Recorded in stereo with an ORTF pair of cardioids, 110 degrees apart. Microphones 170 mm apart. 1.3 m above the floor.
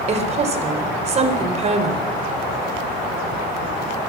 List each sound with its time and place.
0.1 s a woman speaking: 35° right, 4 m